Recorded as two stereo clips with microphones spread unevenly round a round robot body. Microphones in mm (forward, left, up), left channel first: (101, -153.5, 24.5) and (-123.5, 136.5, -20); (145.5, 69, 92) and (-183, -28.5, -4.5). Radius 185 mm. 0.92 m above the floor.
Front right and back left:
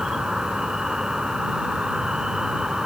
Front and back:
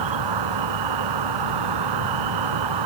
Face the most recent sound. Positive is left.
turn(degrees=-145)